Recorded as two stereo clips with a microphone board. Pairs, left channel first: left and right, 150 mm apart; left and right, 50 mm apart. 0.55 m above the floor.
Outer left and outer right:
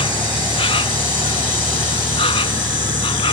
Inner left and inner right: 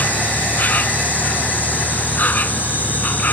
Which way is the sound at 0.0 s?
40° left (ahead or behind).